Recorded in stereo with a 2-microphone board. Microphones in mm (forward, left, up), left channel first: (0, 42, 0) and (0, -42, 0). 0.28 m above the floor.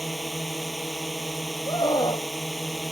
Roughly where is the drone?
Centre.